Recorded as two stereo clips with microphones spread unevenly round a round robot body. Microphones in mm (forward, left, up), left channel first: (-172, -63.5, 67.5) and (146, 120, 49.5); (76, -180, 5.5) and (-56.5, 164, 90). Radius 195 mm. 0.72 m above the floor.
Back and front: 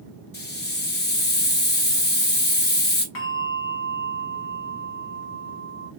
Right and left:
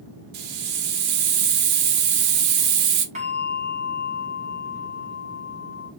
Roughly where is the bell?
Behind.